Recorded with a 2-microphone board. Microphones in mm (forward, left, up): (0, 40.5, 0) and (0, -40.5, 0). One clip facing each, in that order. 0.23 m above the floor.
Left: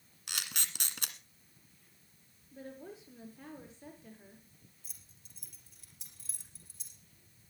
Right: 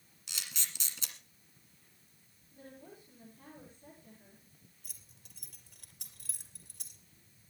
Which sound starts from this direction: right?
Keys jangling, at 4.8 s.